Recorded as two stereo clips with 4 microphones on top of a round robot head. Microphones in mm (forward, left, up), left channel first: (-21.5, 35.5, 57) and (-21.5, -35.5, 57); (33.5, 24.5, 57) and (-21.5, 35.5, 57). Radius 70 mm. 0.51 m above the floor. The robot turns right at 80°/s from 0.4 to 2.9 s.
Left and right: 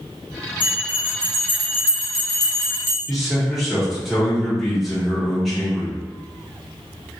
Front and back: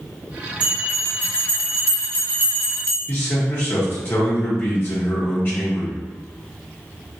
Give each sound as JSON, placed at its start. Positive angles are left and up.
{"t": 0.6, "sound": "a bell", "azimuth_deg": -140, "distance_m": 1.3}
{"t": 3.1, "sound": "a man speaking", "azimuth_deg": 0, "distance_m": 1.0}